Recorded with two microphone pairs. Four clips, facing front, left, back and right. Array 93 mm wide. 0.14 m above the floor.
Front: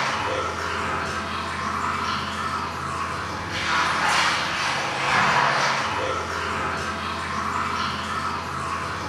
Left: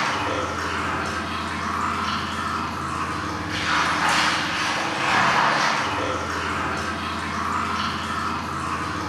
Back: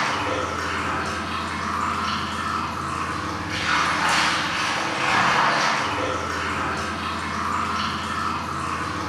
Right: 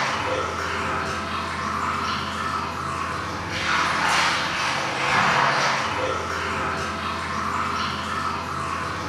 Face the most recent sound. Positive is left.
turn(degrees=-160)